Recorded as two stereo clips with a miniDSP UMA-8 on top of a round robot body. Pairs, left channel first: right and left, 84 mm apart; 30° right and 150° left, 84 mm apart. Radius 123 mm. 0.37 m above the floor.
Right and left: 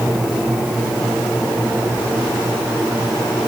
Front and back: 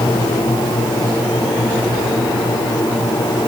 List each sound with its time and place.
Only background noise.